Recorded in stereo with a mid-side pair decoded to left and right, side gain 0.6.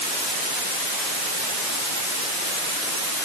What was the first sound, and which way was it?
Only background noise.